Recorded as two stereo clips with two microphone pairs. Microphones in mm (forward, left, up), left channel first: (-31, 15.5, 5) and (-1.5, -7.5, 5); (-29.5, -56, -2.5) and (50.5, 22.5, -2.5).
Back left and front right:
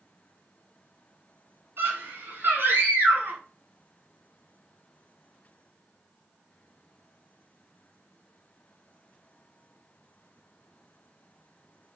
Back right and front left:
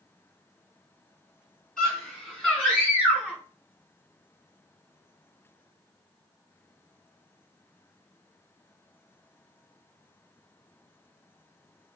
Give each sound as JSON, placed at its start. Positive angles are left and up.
{"t": 1.8, "sound": "a scream", "azimuth_deg": -55, "distance_m": 5.5}